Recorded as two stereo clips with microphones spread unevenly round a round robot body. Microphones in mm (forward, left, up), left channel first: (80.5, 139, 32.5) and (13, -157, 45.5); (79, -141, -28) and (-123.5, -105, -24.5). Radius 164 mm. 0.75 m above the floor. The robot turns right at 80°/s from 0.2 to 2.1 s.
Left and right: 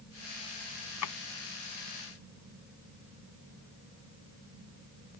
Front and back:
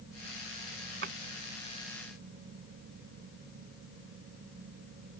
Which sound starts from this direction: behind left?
A drawer, at 1.0 s.